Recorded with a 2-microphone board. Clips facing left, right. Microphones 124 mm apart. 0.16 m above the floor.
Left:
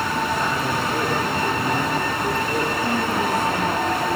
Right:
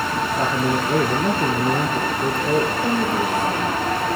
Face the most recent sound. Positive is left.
turn(degrees=-40)  # may be behind; listen again after turning